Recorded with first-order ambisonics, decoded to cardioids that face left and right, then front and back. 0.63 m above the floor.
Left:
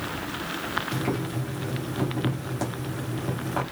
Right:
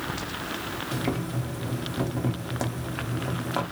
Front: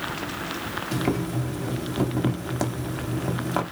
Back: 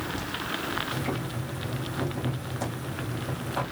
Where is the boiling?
15° right, 1.5 m.